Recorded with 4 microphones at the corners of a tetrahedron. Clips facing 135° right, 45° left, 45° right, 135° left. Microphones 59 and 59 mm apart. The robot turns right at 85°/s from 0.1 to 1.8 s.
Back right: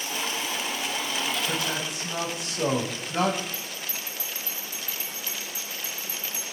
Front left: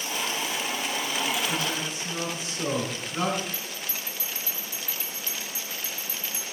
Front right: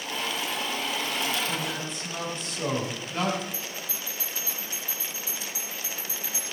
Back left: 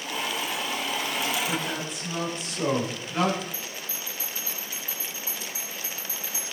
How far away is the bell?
About 6.5 m.